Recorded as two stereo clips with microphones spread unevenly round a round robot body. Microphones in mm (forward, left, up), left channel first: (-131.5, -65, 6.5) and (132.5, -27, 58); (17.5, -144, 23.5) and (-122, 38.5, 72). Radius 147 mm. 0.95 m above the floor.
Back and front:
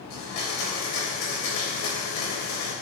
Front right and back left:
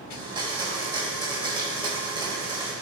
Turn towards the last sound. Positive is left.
turn(degrees=-160)